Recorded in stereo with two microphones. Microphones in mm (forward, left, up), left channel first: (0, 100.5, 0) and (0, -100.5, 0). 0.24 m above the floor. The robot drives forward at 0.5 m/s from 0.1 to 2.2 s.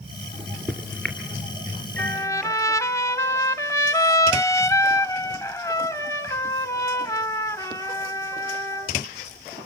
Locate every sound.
0.3 s a microwave: 10° left (ahead or behind), 2.5 m; by 2.5 s 5° left (ahead or behind), 3 m
2.0 s a trumpet: 15° left (ahead or behind), 0.9 m